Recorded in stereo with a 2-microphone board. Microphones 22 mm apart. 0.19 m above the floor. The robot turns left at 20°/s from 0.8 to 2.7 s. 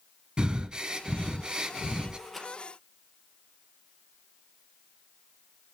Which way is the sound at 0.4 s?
40° right (ahead or behind).